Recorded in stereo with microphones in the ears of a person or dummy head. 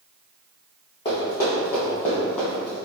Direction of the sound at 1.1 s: 25° left (ahead or behind).